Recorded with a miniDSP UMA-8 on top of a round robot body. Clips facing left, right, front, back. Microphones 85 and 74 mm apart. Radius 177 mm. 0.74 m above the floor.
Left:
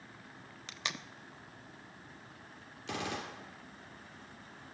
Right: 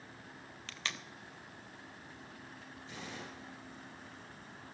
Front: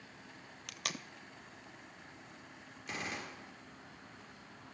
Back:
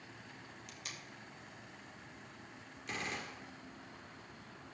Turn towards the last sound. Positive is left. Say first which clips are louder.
# left 9 dB, even
turn(degrees=85)